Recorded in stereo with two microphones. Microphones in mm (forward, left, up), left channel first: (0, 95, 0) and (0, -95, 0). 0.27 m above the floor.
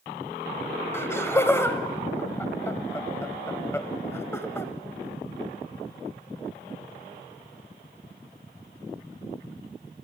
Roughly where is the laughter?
Centre.